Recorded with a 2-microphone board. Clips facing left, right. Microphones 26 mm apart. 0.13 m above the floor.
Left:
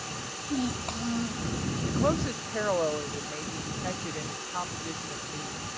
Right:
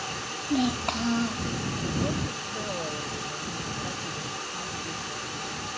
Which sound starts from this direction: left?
A woman speaking, at 1.9 s.